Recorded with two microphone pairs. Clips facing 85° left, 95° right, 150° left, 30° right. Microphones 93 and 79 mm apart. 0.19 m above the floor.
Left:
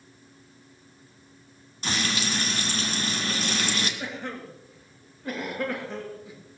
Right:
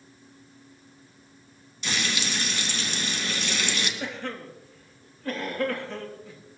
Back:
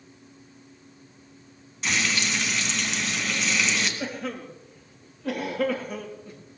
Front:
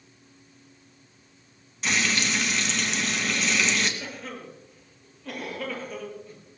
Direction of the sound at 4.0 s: 160° left.